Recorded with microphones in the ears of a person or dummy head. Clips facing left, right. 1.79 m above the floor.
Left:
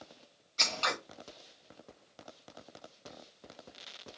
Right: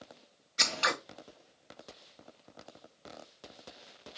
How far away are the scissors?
About 0.6 m.